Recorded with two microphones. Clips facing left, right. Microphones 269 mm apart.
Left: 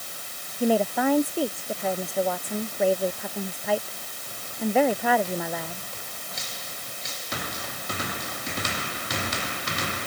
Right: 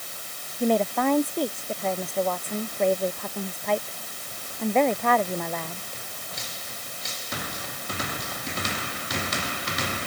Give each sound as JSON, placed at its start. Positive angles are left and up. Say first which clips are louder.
{"t": 0.6, "sound": "a woman speaking", "louder": "even", "side_deg": 5}